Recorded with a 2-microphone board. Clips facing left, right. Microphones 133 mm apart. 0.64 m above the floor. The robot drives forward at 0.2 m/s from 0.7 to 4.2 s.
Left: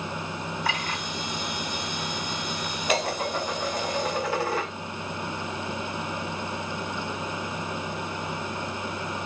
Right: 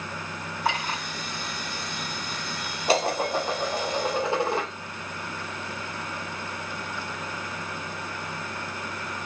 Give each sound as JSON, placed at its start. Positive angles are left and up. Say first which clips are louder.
{"t": 0.7, "sound": "a clink", "louder": "right 5 dB", "side_deg": -60, "distance_m": 2.5}
{"t": 2.9, "sound": "dishes clattering", "louder": "right 3 dB", "side_deg": -30, "distance_m": 0.8}